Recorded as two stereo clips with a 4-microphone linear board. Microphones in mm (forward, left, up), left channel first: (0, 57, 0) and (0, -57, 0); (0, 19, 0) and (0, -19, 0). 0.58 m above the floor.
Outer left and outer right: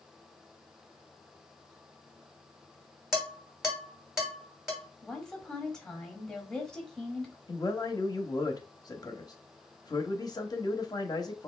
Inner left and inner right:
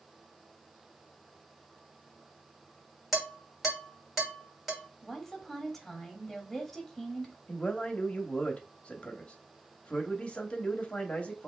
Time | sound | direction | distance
3.1 | dishes clattering | 5° right (ahead or behind) | 2 m
5.0 | a woman speaking | 5° left (ahead or behind) | 1.1 m
7.5 | a man speaking | 35° left (ahead or behind) | 0.8 m